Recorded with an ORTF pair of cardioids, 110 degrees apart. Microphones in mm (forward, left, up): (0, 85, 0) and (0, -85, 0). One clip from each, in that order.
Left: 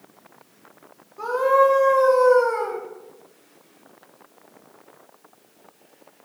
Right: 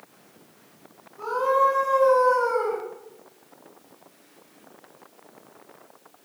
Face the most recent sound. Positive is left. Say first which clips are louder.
# left 4 dB
turn(degrees=55)